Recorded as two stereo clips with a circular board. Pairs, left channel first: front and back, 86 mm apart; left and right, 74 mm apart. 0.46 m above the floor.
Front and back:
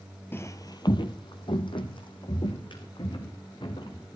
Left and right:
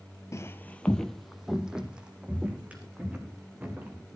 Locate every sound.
0.3 s footsteps: 55° left, 0.6 m; by 4.1 s 25° right, 3.5 m